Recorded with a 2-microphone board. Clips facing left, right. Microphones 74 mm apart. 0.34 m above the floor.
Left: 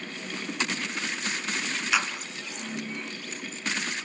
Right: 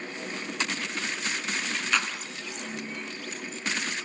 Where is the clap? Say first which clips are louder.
Left 1 dB; 5° left (ahead or behind), 3 m.